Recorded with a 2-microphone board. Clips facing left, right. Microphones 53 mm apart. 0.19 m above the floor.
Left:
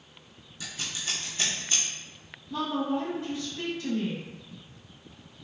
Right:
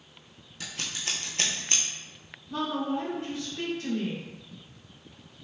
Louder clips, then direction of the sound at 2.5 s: Left 1 dB; 50° right (ahead or behind).